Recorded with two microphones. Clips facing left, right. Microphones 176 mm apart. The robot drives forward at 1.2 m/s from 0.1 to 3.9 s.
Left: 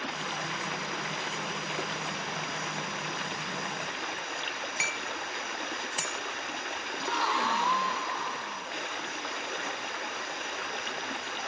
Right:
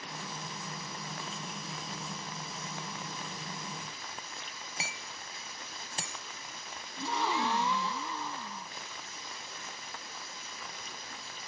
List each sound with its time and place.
0.0 s running water: 85° left; by 11.5 s 70° left (ahead or behind)
4.8 s hammering: 30° right (ahead or behind)
7.0 s a gasp: 20° right (ahead or behind)